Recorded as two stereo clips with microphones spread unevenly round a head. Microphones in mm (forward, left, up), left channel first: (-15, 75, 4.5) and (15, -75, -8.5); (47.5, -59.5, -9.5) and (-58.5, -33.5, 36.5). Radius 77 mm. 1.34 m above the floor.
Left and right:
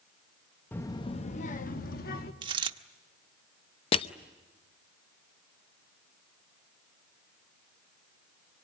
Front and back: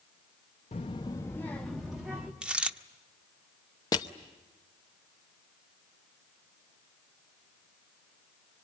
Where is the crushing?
65° left, 0.7 m.